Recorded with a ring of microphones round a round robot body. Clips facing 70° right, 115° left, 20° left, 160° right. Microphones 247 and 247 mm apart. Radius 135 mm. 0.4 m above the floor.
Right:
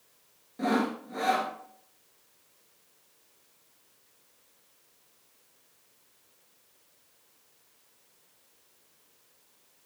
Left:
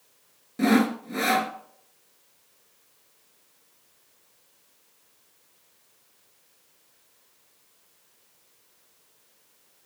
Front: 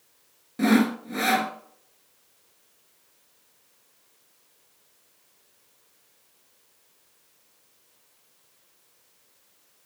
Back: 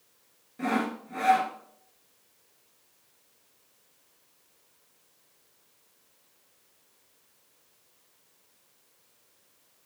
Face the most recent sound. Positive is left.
turn(degrees=60)